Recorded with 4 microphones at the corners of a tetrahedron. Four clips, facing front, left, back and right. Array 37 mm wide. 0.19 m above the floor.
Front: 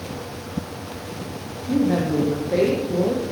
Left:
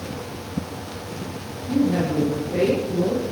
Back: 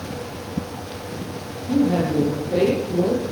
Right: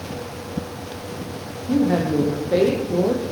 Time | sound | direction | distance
1.7 | a woman speaking | 70° right | 9 m